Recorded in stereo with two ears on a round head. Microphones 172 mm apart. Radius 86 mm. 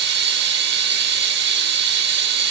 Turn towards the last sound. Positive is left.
turn(degrees=-60)  # may be behind; listen again after turning